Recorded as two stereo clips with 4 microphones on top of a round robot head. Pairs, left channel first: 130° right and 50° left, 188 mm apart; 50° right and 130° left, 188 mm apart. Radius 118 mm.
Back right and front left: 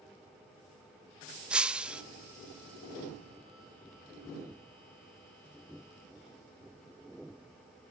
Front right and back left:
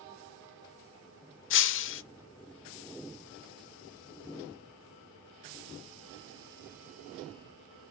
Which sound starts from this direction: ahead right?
Breaking glass, at 1.5 s.